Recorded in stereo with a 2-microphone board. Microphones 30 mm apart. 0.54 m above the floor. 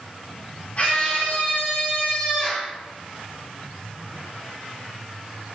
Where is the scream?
45° left (ahead or behind), 2.5 m; by 2.7 s 55° left (ahead or behind), 3.5 m.